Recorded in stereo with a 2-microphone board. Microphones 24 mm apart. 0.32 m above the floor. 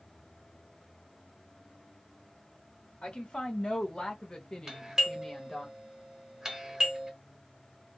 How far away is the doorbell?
About 1.3 m.